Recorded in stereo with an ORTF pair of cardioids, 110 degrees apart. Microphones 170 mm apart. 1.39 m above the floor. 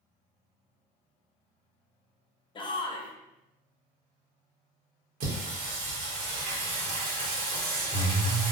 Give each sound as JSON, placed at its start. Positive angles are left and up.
{"t": 2.5, "sound": "a shout", "azimuth_deg": 30, "distance_m": 0.6}
{"t": 5.2, "sound": "singing", "azimuth_deg": -60, "distance_m": 1.0}